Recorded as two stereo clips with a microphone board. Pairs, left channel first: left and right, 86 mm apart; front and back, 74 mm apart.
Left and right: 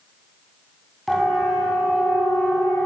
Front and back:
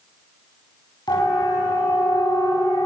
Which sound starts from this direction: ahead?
A siren, at 1.1 s.